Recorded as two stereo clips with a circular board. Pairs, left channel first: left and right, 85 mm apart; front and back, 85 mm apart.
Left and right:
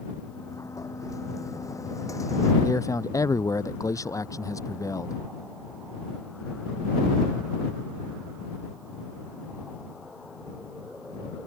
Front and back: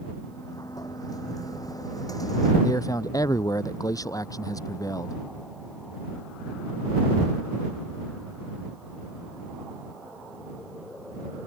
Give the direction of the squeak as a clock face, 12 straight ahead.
No squeak in this recording.